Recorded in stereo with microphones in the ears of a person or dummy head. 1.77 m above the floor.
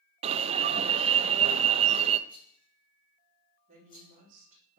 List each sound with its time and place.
0.2 s an alarm: 30° right (ahead or behind), 0.8 m
2.3 s a rattle: 40° left (ahead or behind), 7.5 m
3.7 s a woman speaking: 45° right (ahead or behind), 3.5 m